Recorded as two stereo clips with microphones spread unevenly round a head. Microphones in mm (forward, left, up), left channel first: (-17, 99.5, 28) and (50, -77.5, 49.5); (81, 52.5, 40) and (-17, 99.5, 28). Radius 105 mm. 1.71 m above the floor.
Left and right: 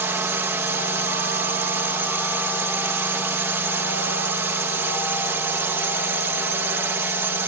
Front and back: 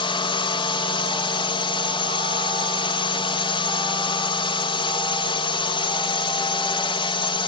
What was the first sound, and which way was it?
A drone, 10° left.